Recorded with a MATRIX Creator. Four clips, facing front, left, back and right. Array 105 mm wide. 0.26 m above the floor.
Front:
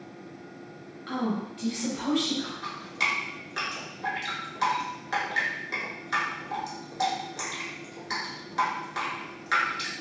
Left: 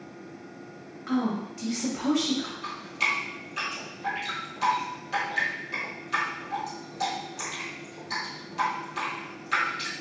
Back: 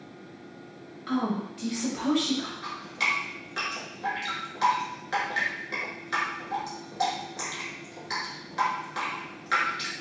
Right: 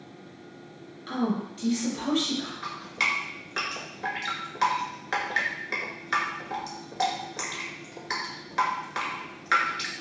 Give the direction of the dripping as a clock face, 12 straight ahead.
3 o'clock.